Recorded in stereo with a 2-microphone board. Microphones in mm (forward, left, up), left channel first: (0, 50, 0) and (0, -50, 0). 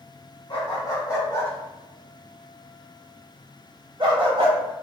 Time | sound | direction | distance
0.5 | a dog barking | 45° left (ahead or behind) | 1.4 m